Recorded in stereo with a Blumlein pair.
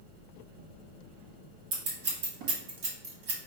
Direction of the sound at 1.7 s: 45° right.